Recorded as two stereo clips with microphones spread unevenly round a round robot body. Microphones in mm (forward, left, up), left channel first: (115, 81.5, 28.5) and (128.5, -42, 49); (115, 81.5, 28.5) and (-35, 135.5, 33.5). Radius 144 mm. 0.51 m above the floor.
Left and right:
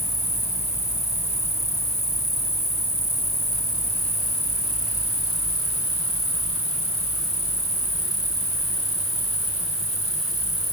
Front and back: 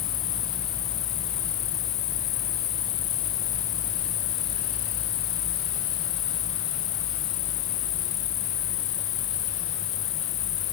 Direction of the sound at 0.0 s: 45° right.